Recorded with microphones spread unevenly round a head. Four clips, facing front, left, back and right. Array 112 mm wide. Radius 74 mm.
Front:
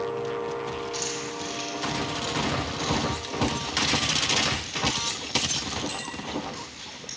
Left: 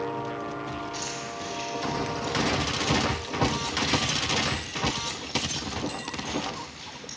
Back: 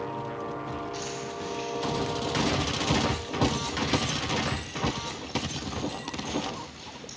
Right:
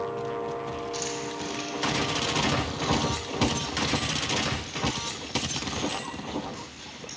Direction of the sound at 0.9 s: 40° right.